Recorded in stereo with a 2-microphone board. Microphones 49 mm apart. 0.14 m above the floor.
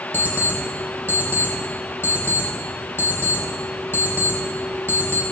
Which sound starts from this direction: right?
An alarm clock, at 0.1 s.